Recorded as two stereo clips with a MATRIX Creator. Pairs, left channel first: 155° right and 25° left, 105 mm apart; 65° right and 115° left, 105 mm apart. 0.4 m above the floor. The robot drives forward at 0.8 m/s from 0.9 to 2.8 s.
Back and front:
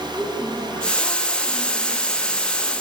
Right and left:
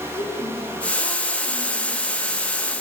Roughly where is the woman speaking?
Right.